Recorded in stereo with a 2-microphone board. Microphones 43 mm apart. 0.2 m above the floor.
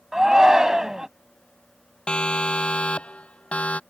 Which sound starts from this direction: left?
A siren, at 2.1 s.